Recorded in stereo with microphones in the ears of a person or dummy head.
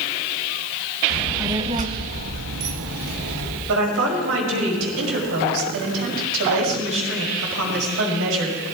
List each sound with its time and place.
1.1 s a child speaking: 5° right (ahead or behind), 1.4 m; by 3.6 s 80° right, 2.5 m
3.7 s a woman speaking: 80° right, 5 m